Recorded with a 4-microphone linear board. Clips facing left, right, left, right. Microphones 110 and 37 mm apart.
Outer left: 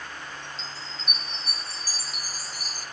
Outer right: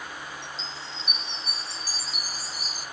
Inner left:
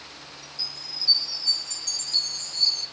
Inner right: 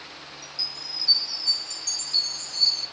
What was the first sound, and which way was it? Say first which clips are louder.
A chime: outer right 1 dB, inner right 2 dB; 45° left (ahead or behind).